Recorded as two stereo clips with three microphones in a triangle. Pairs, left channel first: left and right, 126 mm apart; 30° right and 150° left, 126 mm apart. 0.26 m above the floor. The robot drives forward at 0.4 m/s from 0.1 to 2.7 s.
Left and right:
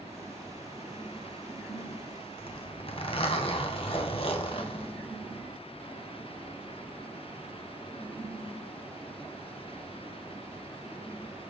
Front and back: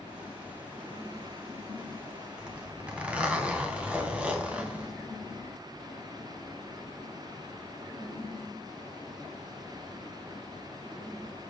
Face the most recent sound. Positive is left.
turn(degrees=75)